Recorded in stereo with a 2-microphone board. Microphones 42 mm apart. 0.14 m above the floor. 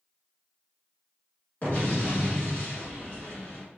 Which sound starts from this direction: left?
An explosion, at 1.6 s.